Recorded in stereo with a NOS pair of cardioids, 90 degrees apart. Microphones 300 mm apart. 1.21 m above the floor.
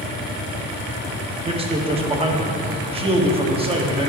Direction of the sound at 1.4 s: 20° right.